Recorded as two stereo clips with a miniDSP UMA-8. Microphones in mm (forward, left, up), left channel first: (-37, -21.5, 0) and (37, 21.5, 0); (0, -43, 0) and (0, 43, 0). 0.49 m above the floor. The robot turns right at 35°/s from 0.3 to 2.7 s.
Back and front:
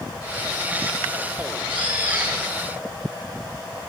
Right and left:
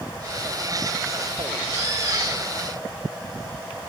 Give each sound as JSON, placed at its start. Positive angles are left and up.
{"t": 1.7, "sound": "a bird", "azimuth_deg": 25, "distance_m": 5.5}